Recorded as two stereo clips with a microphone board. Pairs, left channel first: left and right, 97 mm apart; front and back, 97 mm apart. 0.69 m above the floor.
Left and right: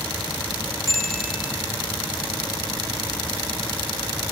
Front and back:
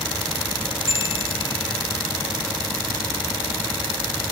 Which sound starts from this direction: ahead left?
A bicycle bell, at 0.9 s.